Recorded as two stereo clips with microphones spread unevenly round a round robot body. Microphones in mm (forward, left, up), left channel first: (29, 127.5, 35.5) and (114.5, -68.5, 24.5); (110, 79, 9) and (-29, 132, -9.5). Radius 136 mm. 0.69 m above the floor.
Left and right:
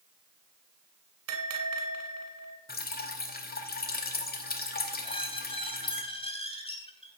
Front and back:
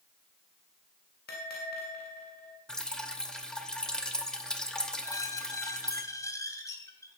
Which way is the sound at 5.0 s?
50° left.